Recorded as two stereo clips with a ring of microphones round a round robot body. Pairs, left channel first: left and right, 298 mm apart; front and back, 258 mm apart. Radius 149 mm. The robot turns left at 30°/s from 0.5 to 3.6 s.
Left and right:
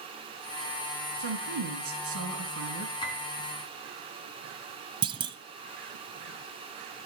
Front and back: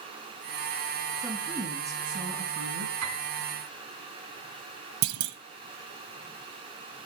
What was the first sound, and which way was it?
A woman speaking, 90° right.